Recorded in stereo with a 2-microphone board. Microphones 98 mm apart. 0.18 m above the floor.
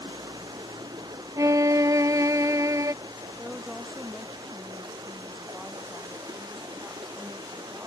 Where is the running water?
45° right (ahead or behind).